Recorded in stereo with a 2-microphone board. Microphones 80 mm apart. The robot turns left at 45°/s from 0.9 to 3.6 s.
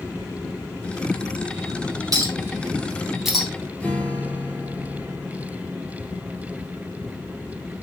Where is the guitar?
15° left (ahead or behind), 2.5 m.